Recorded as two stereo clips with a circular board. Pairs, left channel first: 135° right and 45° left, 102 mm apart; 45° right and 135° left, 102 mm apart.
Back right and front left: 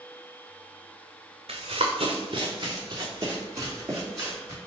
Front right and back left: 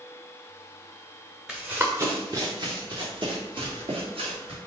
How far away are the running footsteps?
About 0.8 m.